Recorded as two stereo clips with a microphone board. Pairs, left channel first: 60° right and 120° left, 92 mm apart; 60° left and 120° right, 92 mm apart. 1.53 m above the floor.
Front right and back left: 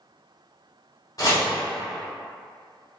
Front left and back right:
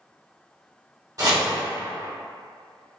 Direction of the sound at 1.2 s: 90° right.